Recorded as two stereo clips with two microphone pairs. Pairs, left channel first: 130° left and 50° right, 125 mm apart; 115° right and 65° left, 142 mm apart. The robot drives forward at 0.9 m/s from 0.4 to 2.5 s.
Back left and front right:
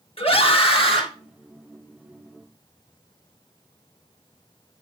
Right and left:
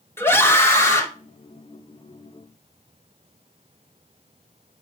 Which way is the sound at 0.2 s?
170° left.